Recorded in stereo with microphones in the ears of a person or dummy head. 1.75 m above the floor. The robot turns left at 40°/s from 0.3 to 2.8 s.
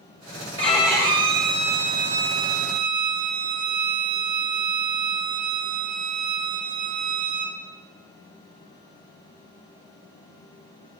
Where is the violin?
35° left, 1.9 m; by 7.5 s 55° right, 1.9 m.